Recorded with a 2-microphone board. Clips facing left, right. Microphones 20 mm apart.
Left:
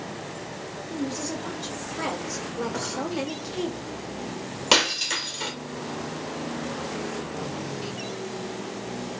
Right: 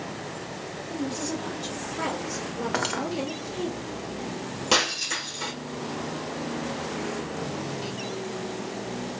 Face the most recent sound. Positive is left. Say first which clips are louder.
# left 3 dB
turn(degrees=25)  # may be behind; listen again after turning